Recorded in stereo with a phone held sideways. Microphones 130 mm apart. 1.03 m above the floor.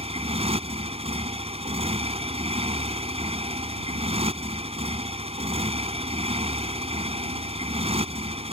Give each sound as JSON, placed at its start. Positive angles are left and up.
{"t": 0.0, "sound": "a motorcycle", "side_deg": -50}